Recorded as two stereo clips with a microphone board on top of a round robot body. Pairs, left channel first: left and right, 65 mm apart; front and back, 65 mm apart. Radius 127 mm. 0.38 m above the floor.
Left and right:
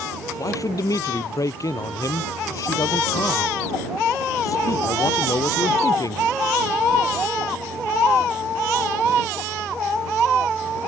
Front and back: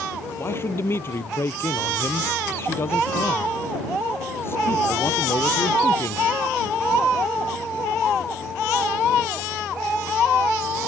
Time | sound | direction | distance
0.4 | a man speaking | 55° left | ?